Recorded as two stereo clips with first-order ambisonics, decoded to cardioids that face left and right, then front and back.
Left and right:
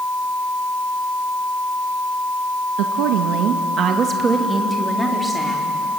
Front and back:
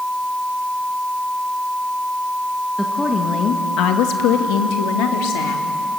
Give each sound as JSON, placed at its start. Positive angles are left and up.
{"t": 2.8, "sound": "a woman speaking", "azimuth_deg": -90, "distance_m": 1.8}